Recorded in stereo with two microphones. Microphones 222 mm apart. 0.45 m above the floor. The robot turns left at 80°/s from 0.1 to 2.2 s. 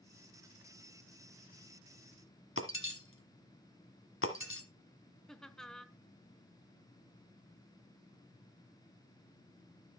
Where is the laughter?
Centre (ahead or behind), 0.8 m.